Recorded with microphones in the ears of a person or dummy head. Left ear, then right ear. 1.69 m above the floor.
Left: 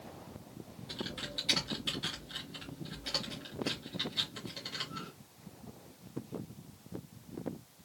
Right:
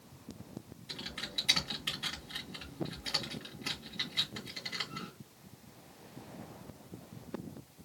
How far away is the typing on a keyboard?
About 1.7 m.